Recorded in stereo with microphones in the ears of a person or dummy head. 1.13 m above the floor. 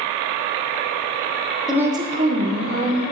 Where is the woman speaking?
5° right (ahead or behind), 0.7 m; by 3.0 s 55° right (ahead or behind), 1.4 m.